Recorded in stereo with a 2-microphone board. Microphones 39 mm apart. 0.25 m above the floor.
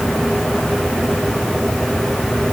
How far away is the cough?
I don't hear a cough.